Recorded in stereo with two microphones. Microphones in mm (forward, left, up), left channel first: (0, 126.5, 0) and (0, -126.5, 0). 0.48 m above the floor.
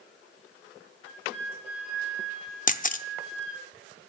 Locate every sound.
1.0 s a flute: 5° right (ahead or behind), 7 m
2.7 s a camera shutter: 35° left (ahead or behind), 0.6 m